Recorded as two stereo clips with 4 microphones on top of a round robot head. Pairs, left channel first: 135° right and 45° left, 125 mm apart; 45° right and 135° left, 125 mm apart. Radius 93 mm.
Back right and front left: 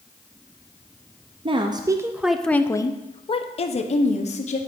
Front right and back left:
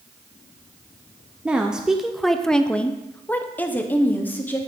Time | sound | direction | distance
1.4 | a woman speaking | 55° left | 0.7 m